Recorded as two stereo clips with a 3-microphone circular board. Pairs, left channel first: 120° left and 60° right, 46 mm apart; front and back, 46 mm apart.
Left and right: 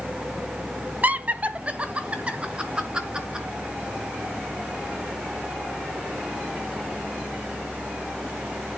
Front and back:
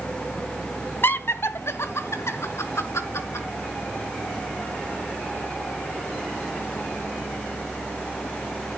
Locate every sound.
1.0 s laughter: 15° right, 1.3 m; by 3.5 s 10° left, 5 m